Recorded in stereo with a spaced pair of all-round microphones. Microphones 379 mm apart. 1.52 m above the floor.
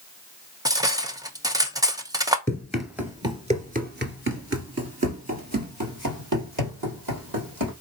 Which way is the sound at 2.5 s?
5° left (ahead or behind).